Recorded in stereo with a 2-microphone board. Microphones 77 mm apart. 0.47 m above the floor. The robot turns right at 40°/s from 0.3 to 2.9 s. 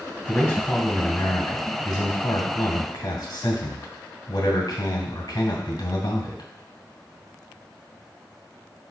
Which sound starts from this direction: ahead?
A man speaking, at 0.3 s.